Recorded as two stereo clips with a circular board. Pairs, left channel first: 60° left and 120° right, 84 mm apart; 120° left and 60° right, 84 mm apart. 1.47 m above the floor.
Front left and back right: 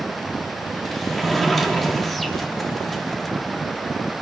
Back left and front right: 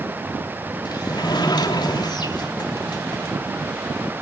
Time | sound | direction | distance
0.8 | a sliding door | 145° left | 3 m